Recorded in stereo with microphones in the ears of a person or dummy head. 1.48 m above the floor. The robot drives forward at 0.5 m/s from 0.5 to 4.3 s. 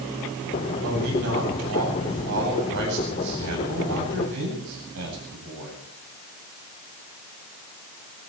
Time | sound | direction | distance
0.8 | a man speaking | 85° right | 8.5 m